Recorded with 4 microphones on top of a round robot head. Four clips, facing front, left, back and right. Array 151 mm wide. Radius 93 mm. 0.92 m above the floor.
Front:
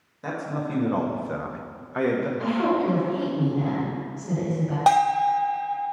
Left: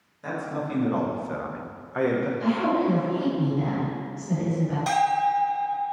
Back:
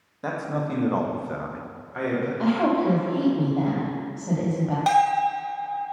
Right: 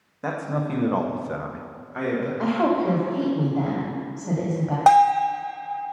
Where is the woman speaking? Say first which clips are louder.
Right 3 dB, back 3 dB; 125° right, 1.8 m.